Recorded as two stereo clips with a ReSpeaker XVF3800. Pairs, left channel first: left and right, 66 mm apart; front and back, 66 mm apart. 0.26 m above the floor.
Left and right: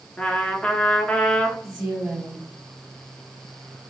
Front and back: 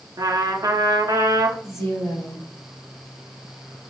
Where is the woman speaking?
20° right, 1.8 m.